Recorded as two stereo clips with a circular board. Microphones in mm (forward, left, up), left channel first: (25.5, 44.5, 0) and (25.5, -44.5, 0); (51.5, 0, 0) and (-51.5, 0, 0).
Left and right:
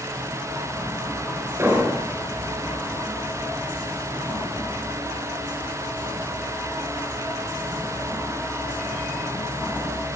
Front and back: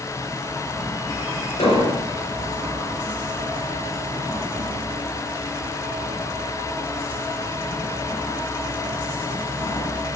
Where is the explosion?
30° right, 3.5 m.